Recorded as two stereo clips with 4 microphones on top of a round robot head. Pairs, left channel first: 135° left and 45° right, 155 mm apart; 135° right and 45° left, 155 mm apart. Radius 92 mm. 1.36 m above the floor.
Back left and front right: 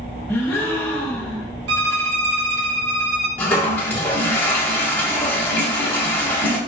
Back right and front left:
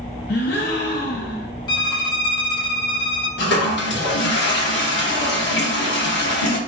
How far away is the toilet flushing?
About 1.0 m.